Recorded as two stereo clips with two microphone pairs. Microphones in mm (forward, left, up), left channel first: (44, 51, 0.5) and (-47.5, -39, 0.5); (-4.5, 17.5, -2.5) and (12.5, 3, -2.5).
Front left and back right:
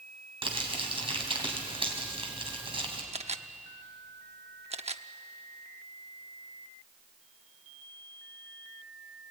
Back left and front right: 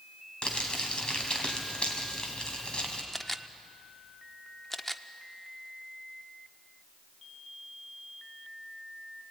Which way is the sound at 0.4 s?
Straight behind.